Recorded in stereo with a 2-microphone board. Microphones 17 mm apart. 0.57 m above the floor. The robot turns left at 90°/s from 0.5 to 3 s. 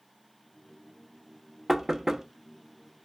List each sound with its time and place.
1.7 s knocking: 15° right (ahead or behind), 0.6 m; by 2.2 s 25° right (ahead or behind), 0.6 m